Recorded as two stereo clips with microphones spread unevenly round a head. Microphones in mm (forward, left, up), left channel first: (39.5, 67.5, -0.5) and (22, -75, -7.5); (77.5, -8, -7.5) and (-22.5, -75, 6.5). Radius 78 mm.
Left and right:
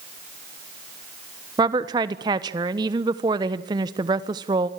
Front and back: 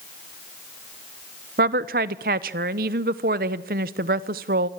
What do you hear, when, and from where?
1.6 s a woman speaking: 165° right, 1.0 m